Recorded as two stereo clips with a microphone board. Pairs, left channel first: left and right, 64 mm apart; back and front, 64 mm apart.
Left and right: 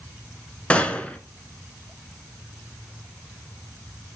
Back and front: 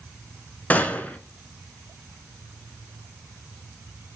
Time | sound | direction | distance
0.7 | a gunshot | 145° left | 0.6 m